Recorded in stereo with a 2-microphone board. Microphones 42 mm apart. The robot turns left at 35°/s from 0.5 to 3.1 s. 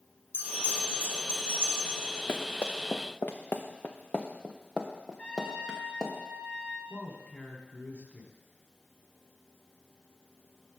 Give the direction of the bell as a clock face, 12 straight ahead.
10 o'clock.